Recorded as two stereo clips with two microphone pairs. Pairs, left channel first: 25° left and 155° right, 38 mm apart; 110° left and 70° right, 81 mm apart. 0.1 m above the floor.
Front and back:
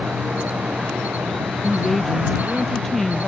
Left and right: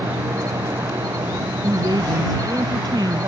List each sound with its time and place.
0.0 s an insect: 115° right
1.6 s a woman speaking: 55° right